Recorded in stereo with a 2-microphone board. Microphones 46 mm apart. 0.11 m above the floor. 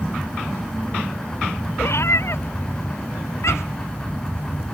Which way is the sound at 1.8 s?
65° left (ahead or behind).